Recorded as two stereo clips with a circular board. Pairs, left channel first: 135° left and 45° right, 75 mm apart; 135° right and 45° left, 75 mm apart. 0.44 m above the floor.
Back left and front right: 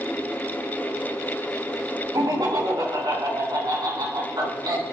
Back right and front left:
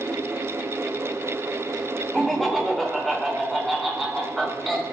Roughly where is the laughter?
Ahead right.